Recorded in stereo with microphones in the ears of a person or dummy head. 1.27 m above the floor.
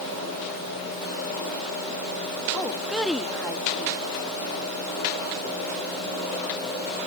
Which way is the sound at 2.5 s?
Centre (ahead or behind).